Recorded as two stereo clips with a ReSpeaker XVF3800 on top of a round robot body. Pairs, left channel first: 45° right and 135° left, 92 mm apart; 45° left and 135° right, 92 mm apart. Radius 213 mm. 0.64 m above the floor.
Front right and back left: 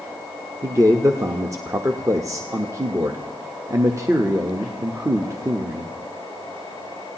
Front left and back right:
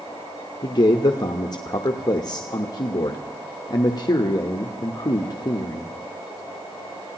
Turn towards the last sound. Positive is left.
turn(degrees=85)